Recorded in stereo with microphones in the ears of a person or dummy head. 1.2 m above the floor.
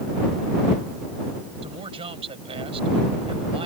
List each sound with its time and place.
1.6 s a man speaking: 30° right (ahead or behind)